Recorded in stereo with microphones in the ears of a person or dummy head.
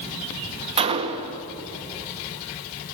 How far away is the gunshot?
About 1.9 m.